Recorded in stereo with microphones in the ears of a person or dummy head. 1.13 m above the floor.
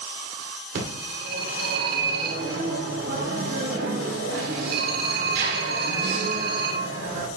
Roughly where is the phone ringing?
Right.